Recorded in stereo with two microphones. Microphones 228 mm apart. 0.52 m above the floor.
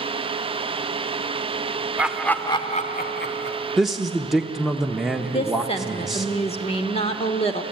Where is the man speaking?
Centre (ahead or behind), 0.8 m.